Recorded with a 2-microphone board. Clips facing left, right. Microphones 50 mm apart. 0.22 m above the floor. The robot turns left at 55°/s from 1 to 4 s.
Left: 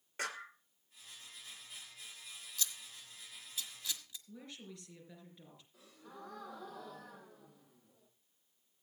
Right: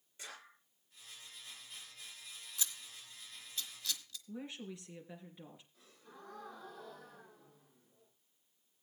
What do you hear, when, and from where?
0.2 s a clap: 65° left (ahead or behind), 2.5 m
2.6 s scissors: 20° right (ahead or behind), 1.4 m; by 4.2 s 20° left (ahead or behind), 1.4 m
4.3 s a woman speaking: 15° right (ahead or behind), 4 m
5.7 s a gasp: 75° left (ahead or behind), 6 m